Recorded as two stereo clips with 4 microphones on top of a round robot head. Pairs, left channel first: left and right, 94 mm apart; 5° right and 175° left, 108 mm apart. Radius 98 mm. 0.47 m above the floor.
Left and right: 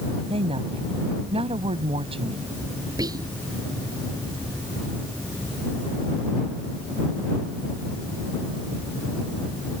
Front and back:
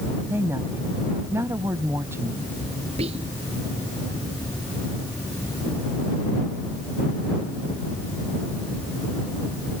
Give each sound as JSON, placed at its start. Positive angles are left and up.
{"t": 0.3, "sound": "a woman speaking", "azimuth_deg": -110}
{"t": 3.0, "sound": "whispering", "azimuth_deg": -140}